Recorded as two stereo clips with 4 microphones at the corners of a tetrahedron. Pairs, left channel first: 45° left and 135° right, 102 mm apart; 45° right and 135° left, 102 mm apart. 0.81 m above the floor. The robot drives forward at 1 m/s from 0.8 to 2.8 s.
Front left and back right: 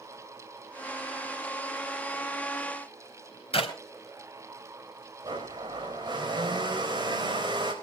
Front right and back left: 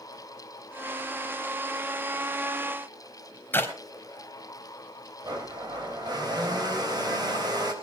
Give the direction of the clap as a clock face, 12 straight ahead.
11 o'clock.